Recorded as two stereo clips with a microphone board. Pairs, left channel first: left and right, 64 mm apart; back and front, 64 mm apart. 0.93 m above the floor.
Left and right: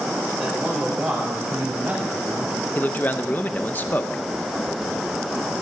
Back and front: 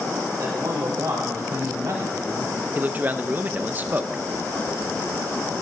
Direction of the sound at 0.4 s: 5° right.